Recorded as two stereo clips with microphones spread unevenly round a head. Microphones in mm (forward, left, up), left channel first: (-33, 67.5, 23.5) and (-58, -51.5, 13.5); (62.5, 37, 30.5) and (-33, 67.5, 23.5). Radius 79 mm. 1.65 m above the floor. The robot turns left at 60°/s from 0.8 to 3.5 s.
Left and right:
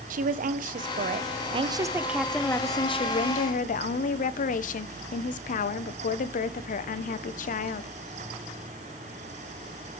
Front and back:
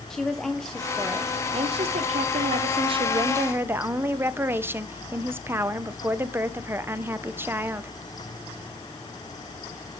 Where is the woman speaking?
105° right, 0.6 m; by 7.9 s 95° left, 0.6 m.